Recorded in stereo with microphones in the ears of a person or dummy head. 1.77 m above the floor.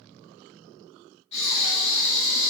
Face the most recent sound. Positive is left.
turn(degrees=35)  # may be behind; listen again after turning